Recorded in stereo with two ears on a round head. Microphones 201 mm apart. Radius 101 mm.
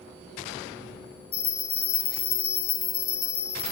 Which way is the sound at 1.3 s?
45° left (ahead or behind).